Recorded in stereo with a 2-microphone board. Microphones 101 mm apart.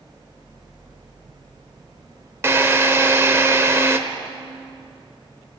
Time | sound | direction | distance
2.4 | a drill | 25° right (ahead or behind) | 1.3 m